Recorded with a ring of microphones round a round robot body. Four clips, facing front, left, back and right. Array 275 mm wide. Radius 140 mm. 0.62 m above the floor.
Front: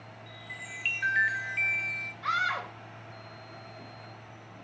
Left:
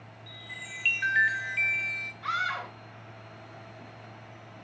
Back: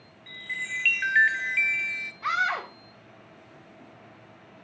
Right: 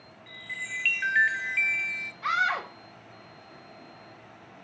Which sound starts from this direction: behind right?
A scream, at 2.2 s.